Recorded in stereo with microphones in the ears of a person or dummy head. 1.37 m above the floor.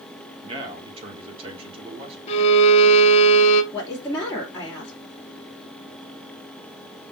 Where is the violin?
35° left (ahead or behind), 1.3 m.